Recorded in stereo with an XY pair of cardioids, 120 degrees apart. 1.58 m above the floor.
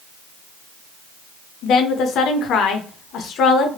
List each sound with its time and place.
1.6 s a woman speaking: 65° left, 0.6 m